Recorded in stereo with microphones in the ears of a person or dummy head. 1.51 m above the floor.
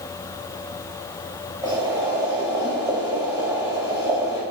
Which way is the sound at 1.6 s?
20° right (ahead or behind).